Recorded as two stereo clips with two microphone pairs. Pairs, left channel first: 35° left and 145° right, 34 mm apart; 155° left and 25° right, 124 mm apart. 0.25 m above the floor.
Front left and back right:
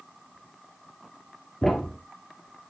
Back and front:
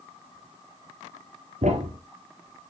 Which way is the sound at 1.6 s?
45° right.